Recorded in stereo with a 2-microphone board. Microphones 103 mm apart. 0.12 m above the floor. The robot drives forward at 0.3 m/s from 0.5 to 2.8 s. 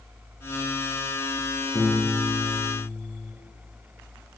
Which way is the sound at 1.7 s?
30° left (ahead or behind).